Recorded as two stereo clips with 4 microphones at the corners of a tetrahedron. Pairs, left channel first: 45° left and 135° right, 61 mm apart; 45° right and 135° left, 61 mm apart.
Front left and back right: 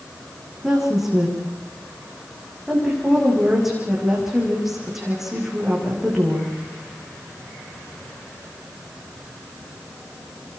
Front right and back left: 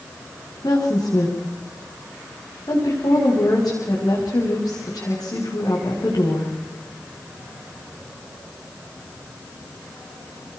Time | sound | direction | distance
0.6 | a woman speaking | 50° right | 9 m